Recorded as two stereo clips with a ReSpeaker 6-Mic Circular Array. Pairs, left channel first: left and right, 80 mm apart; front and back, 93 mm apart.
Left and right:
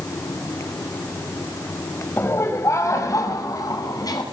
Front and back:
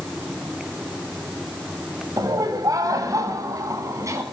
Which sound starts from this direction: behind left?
Laughter, at 2.2 s.